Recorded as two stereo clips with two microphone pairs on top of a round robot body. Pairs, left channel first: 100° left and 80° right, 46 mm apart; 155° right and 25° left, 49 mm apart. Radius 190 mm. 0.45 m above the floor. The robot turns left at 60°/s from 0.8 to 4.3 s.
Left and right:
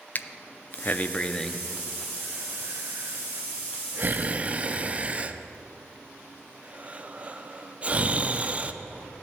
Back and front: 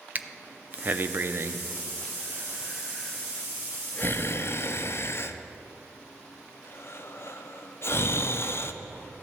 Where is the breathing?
70° left, 0.6 m; by 8.7 s 140° right, 0.6 m.